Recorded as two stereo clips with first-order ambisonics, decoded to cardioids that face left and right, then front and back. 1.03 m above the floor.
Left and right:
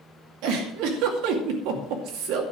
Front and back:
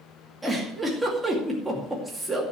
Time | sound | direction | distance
0.4 | a giggle | 95° right | 2.5 m